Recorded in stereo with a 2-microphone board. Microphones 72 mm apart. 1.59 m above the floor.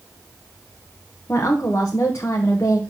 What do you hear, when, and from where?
1.3 s a woman speaking: 40° left (ahead or behind), 0.8 m